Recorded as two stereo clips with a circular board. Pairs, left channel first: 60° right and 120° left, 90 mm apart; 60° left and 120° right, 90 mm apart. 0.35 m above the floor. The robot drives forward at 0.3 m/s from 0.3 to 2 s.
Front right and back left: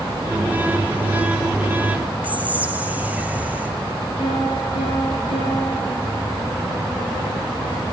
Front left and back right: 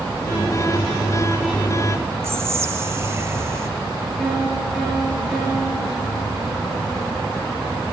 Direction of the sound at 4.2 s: 35° right.